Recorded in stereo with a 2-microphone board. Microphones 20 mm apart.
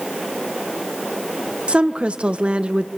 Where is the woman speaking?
75° right (ahead or behind), 1.1 m.